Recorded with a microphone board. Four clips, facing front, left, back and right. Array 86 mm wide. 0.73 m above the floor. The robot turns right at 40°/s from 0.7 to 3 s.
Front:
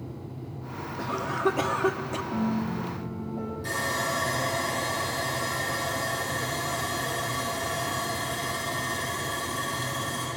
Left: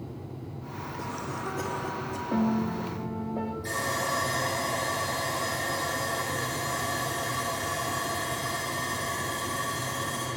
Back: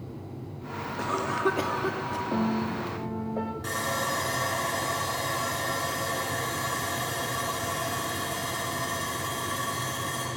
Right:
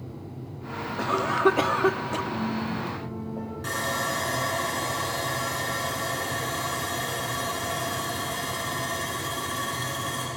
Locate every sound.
1.0 s a cough: 110° right, 0.9 m; by 2.2 s 60° right, 0.9 m
2.3 s a piano: 130° left, 1.5 m; by 3.5 s 160° left, 1.5 m
3.6 s sawing: 120° right, 8.5 m